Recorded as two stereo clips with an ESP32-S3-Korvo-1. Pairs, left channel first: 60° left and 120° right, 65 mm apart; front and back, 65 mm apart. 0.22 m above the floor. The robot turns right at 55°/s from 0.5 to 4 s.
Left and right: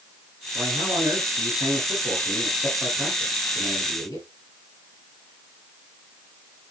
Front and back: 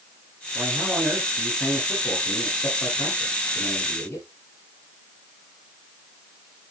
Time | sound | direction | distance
0.6 | a man speaking | 140° right | 5.5 m